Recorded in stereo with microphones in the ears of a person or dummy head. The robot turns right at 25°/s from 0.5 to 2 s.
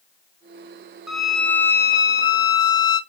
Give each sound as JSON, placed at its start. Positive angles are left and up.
{"t": 1.1, "sound": "a violin", "side_deg": -5, "distance_m": 0.5}